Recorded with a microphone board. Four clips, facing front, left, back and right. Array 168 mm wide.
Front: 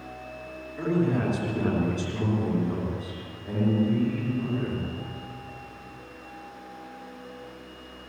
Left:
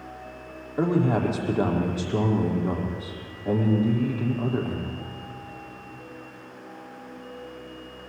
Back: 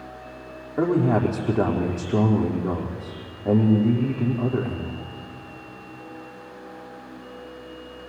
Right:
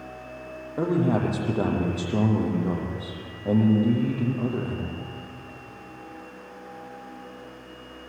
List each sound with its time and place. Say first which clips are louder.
0.8 s a man speaking: left 1 dB, back 5 dB; 155° right, 6 m